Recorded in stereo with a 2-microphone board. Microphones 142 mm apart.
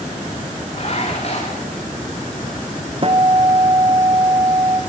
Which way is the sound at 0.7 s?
45° left (ahead or behind).